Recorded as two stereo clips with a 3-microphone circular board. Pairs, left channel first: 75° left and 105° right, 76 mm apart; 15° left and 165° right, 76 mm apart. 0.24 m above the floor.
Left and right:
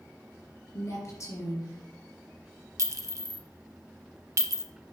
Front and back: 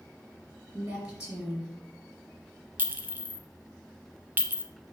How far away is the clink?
About 0.8 m.